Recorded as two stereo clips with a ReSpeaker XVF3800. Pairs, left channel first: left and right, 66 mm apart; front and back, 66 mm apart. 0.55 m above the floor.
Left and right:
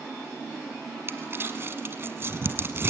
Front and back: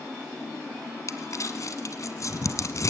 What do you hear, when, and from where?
1.1 s crumpling: 35° right, 1.9 m